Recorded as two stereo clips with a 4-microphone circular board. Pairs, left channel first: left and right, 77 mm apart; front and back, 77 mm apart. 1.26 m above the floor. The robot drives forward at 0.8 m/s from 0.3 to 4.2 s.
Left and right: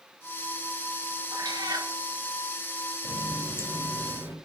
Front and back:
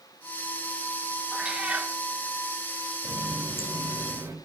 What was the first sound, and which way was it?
A cat meowing, 100° right.